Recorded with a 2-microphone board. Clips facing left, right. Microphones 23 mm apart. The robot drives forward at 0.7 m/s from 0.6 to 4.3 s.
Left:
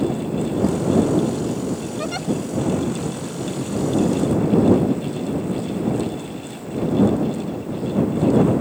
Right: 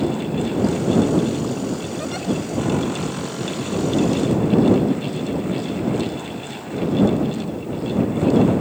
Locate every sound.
2.0 s a giggle: 25° left (ahead or behind); by 2.3 s 20° left (ahead or behind)